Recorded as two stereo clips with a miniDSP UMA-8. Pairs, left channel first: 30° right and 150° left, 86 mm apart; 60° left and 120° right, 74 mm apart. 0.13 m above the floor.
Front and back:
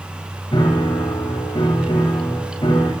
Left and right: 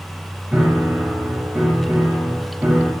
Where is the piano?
55° right, 9.5 m.